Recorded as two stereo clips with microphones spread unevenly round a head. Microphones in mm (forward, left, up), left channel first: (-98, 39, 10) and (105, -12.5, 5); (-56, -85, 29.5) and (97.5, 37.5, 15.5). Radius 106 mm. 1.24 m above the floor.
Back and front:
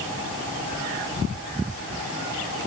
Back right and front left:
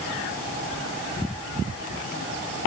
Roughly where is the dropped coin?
No dropped coin in this recording.